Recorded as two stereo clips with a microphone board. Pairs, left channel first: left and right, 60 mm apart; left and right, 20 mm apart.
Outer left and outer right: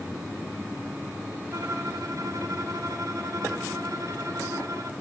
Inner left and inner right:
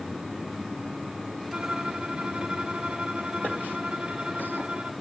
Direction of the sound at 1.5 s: 65° right (ahead or behind).